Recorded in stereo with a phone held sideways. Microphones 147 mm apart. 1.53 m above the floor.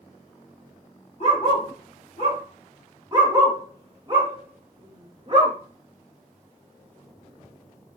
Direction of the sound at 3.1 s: 30° right (ahead or behind).